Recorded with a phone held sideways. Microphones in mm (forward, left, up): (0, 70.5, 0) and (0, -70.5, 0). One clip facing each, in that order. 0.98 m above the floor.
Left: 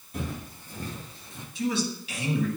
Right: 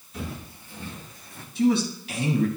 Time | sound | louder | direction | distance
0.1 | footsteps | left 1 dB | 50° left (ahead or behind) | 1.6 m
1.6 | a man speaking | right 7 dB | 40° right (ahead or behind) | 1.1 m